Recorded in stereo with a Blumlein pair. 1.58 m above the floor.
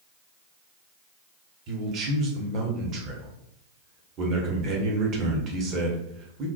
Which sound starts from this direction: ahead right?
A man speaking, at 1.7 s.